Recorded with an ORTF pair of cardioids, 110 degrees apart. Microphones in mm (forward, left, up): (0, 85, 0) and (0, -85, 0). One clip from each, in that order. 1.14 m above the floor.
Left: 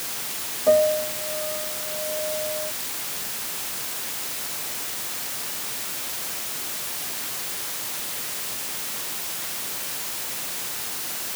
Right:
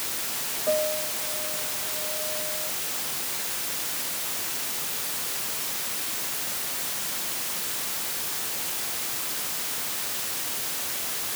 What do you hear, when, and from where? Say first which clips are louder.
0.7 s a piano: left 8 dB; 50° left